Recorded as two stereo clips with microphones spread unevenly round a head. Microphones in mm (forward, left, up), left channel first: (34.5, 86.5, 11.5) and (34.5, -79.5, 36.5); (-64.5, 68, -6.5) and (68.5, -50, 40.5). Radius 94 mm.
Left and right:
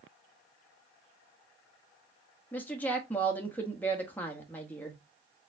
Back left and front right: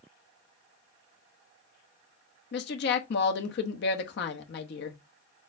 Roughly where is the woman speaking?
Behind.